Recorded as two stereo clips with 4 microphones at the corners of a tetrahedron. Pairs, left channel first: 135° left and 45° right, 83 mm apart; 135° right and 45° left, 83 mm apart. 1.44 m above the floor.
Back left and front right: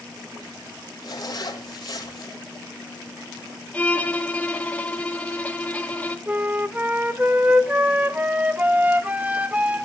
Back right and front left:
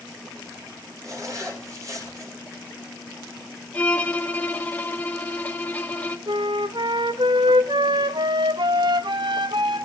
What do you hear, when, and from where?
1.0 s a zipper: 95° left, 2.5 m
3.7 s a violin: 175° right, 0.9 m
6.3 s a flute: 25° left, 0.5 m